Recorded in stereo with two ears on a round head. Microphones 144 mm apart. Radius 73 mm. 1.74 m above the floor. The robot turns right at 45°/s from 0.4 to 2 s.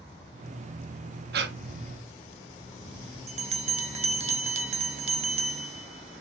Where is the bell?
40° right (ahead or behind), 1.3 m.